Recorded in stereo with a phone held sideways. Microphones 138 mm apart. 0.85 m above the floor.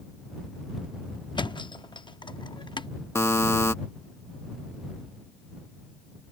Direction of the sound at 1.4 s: 35° left (ahead or behind).